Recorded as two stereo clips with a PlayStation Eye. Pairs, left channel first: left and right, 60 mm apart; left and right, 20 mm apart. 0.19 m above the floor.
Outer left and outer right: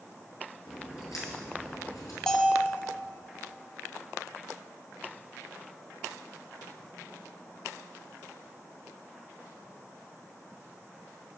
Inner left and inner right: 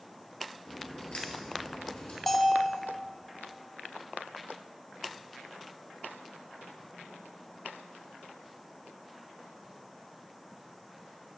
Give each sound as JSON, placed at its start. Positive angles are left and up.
{"t": 0.7, "sound": "a crack", "side_deg": 75, "distance_m": 1.5}
{"t": 2.3, "sound": "a bell", "side_deg": 10, "distance_m": 0.5}